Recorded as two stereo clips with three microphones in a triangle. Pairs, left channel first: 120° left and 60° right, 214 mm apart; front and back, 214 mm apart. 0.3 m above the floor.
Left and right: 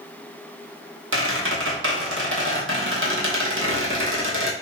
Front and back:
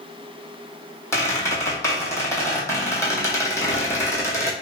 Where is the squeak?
75° right, 0.9 m.